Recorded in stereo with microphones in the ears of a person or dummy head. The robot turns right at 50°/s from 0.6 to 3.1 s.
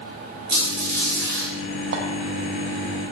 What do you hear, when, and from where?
0.5 s a squeak: 115° right, 1.9 m; by 1.5 s 65° right, 1.9 m
1.9 s a clink: 65° right (ahead or behind), 0.5 m; by 2.0 s 60° right (ahead or behind), 0.5 m